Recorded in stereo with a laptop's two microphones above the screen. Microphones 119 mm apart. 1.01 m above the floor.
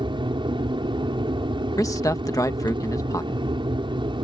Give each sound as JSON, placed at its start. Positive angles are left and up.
{"t": 0.0, "sound": "an aircraft", "side_deg": -45}
{"t": 1.8, "sound": "a man speaking", "side_deg": 30}